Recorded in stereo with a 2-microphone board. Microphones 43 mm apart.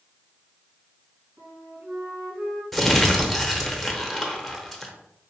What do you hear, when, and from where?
1.4 s a flute: 70° right (ahead or behind), 2 m
2.7 s crumpling: 5° left (ahead or behind), 0.7 m